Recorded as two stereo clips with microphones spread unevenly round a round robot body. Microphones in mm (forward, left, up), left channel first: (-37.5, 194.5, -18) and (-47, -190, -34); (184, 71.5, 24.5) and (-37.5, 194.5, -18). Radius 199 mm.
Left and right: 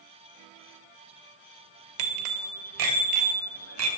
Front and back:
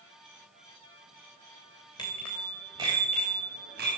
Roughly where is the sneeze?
No sneeze in this recording.